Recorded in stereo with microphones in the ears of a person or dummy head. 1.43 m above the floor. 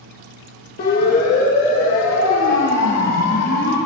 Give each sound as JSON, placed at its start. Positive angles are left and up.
{"t": 0.8, "sound": "a siren", "side_deg": 50, "distance_m": 2.5}